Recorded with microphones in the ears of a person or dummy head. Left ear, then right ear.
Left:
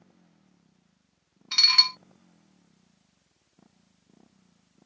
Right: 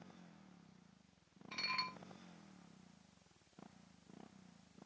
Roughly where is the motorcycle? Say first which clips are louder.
Right 2 dB; right.